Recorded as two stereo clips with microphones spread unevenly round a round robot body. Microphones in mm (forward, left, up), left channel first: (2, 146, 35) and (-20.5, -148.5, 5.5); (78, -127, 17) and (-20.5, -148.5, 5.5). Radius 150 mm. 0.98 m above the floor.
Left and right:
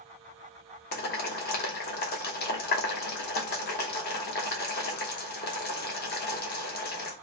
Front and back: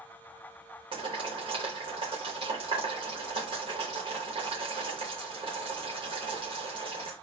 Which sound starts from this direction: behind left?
Boiling, at 0.9 s.